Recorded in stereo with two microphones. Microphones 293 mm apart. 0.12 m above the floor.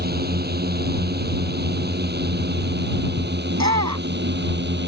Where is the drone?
35° right (ahead or behind).